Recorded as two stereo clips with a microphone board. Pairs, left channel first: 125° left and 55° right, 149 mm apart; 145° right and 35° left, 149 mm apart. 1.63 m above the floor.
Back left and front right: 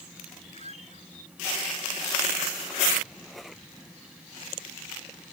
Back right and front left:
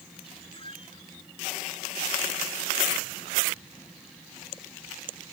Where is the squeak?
165° left.